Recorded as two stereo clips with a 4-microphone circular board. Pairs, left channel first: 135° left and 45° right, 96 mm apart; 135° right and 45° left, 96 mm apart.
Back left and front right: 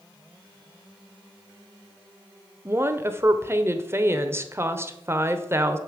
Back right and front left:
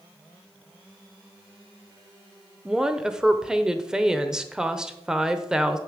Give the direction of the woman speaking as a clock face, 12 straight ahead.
1 o'clock.